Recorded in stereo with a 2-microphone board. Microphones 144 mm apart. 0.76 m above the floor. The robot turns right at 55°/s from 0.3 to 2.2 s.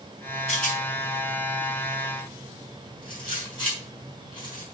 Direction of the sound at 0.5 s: 50° left (ahead or behind).